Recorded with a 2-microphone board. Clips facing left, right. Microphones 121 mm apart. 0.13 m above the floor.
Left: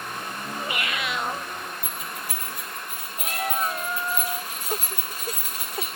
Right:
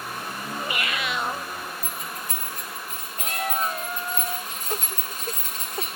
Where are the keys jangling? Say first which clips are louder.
Even; 10° left (ahead or behind), 5.5 m.